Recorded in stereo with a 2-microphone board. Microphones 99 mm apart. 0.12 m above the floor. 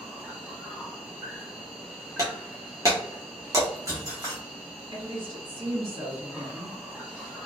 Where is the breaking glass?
35° right (ahead or behind), 1.5 m.